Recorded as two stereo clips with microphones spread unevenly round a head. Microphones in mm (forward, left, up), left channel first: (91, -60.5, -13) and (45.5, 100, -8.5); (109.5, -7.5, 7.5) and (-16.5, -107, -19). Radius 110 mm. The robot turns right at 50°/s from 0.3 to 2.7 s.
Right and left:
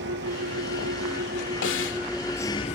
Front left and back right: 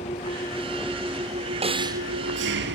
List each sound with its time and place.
0.0 s an engine running: 100° left; by 2.7 s 140° right
1.6 s a snare drum: 90° right; by 2.0 s 70° right